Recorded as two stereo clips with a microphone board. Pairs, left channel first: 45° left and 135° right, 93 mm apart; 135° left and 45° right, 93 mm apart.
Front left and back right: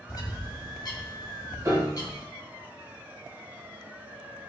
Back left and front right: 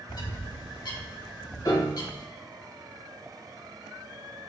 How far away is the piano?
About 1.2 m.